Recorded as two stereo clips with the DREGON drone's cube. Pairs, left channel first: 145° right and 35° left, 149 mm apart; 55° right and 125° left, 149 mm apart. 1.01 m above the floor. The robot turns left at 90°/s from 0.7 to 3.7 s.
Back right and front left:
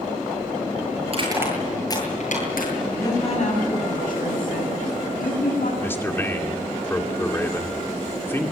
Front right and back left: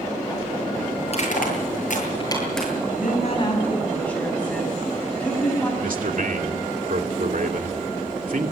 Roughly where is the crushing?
Ahead.